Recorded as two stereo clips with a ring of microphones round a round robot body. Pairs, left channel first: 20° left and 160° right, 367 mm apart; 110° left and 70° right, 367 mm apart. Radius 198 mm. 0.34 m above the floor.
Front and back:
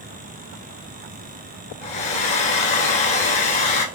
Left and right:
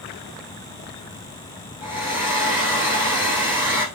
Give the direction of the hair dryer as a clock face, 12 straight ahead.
11 o'clock.